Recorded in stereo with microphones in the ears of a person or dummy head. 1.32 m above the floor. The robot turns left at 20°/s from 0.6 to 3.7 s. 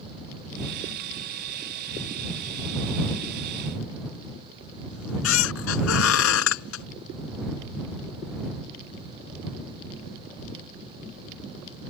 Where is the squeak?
80° left.